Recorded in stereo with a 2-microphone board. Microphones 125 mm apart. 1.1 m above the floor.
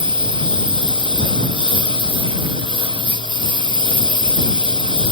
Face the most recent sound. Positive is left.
turn(degrees=-40)  # may be behind; listen again after turning